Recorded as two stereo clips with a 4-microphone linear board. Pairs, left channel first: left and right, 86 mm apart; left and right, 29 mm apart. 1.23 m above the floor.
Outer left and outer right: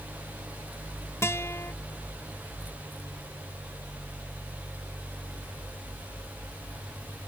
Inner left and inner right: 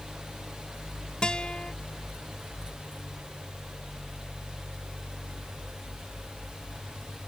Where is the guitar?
30° left (ahead or behind).